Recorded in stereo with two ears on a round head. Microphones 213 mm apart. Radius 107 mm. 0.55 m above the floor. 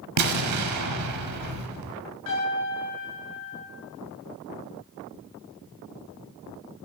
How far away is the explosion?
About 1.0 m.